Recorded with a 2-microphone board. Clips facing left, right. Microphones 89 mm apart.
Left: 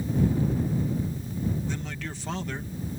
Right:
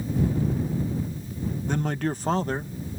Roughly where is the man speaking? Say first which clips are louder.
Right 8 dB; right.